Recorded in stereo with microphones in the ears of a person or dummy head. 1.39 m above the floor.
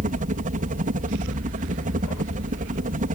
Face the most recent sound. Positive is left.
turn(degrees=-35)  # may be behind; listen again after turning